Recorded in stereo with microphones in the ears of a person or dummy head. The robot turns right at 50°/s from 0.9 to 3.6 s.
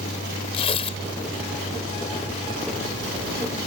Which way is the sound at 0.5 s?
35° left (ahead or behind).